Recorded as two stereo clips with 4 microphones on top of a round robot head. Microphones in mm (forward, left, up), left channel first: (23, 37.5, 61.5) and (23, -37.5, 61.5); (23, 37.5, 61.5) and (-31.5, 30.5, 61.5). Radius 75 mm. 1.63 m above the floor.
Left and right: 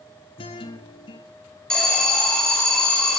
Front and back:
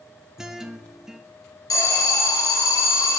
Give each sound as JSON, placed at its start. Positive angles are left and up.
{"t": 0.4, "sound": "a guitar", "azimuth_deg": 110, "distance_m": 0.8}
{"t": 1.7, "sound": "an alarm", "azimuth_deg": 10, "distance_m": 2.5}